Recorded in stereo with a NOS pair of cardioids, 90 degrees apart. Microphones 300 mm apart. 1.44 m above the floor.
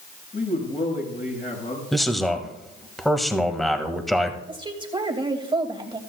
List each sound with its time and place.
0.3 s a man speaking: 30° left, 7.5 m
1.9 s a man speaking: straight ahead, 1.9 m
4.5 s a woman speaking: 15° right, 2.5 m